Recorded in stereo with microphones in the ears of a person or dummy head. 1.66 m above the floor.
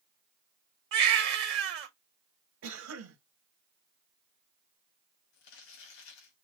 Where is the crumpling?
65° left (ahead or behind), 2 m.